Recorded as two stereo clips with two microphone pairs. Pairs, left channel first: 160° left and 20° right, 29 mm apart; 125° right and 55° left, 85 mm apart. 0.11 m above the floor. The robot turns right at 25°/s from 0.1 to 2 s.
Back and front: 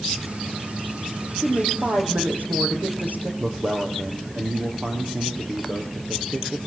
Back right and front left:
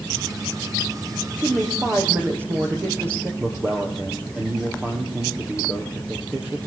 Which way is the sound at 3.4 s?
15° right.